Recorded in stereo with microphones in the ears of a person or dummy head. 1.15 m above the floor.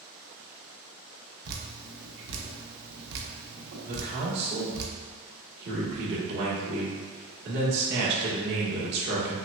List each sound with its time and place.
1.4 s dripping: 55° right (ahead or behind), 0.7 m
3.9 s a man speaking: 60° right (ahead or behind), 1.3 m